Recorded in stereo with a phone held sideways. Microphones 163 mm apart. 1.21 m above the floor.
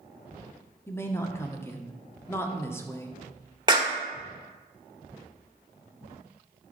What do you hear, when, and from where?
0.9 s a woman speaking: 15° left (ahead or behind), 0.9 m
3.7 s a clap: 25° right (ahead or behind), 1.0 m